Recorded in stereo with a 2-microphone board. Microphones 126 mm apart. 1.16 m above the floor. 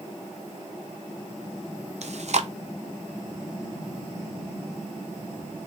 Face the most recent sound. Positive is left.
turn(degrees=-60)  # may be behind; listen again after turning